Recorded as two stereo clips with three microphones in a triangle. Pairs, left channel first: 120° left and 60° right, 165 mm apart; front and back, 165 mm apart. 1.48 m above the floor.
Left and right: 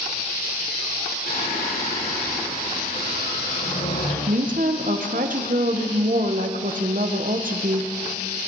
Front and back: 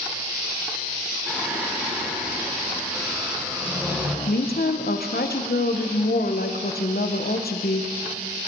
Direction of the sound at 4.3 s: 25° right.